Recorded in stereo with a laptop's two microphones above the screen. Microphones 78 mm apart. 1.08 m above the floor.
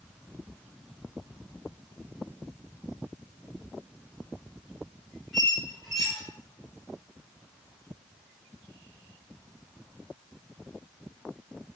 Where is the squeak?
Centre (ahead or behind), 1.0 m.